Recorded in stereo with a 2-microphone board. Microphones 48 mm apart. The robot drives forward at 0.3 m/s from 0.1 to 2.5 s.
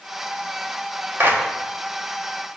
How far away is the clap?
About 1.3 m.